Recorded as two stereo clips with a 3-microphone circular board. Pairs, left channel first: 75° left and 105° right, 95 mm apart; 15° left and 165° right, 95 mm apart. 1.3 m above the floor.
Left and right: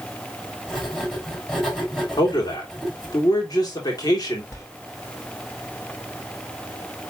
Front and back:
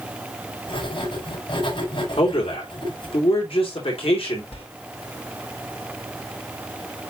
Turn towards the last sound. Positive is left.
turn(degrees=15)